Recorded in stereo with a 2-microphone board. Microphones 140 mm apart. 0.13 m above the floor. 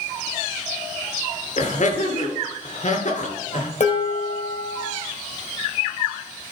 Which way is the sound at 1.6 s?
60° left (ahead or behind).